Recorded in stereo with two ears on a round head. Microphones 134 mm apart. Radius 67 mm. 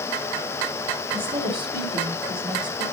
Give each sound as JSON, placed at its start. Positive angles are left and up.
{"t": 1.1, "sound": "a woman speaking", "side_deg": -35, "distance_m": 3.0}